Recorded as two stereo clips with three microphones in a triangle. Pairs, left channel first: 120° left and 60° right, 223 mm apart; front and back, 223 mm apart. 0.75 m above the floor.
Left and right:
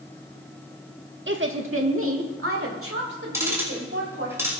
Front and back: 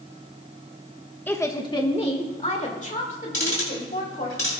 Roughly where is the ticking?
Ahead.